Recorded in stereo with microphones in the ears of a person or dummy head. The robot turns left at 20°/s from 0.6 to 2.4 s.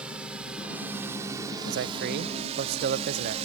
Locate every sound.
0.0 s a drone: 10° right (ahead or behind); by 3.5 s 35° right (ahead or behind)
1.7 s a man speaking: 65° right (ahead or behind); by 3.4 s 50° right (ahead or behind)